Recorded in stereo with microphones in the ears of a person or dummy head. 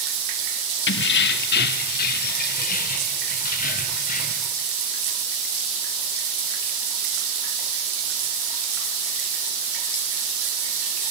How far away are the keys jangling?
About 1.4 m.